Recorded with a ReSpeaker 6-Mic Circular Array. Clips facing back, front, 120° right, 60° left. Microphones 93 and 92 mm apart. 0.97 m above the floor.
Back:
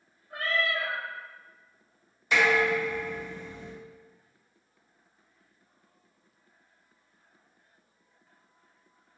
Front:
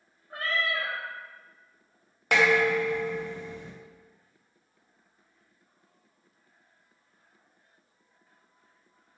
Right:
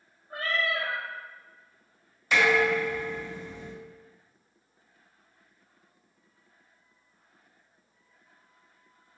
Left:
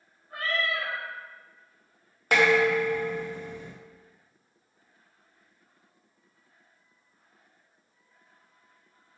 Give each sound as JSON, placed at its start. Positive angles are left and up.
{"t": 0.3, "sound": "a cat meowing", "azimuth_deg": -65, "distance_m": 0.8}
{"t": 2.3, "sound": "dishes clattering", "azimuth_deg": 25, "distance_m": 0.6}